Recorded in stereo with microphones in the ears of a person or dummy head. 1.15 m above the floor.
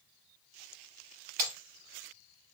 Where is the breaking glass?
40° right (ahead or behind), 1.4 m.